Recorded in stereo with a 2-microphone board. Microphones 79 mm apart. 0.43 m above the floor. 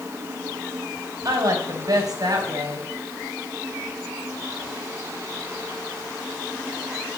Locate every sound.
1.2 s a woman speaking: 55° right (ahead or behind), 3.5 m